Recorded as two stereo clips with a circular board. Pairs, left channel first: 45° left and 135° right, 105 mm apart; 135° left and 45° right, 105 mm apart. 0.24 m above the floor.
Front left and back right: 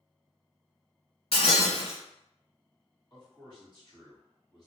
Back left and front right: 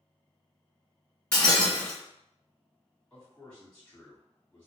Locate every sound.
1.3 s breaking glass: 60° left, 1.5 m
3.1 s a man speaking: 60° left, 1.6 m